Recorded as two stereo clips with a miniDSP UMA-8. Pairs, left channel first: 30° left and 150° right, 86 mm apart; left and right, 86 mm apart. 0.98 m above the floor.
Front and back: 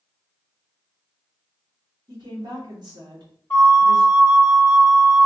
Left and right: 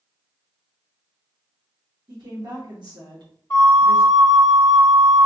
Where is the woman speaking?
120° right, 1.8 m.